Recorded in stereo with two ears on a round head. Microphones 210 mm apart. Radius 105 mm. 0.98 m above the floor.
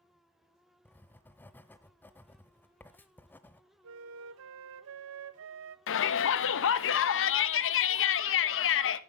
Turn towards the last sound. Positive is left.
turn(degrees=60)  # may be behind; listen again after turning